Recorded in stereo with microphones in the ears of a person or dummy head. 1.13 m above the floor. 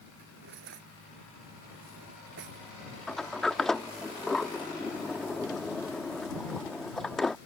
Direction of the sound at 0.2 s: 55° right (ahead or behind).